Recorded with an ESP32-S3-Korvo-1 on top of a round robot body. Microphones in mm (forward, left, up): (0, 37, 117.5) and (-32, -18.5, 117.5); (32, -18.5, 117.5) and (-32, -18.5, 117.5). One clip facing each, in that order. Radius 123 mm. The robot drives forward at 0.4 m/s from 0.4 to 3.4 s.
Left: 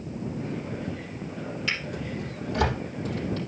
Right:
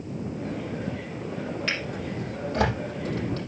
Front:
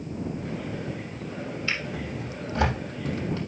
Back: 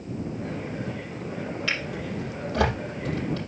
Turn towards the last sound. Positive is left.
turn(degrees=-165)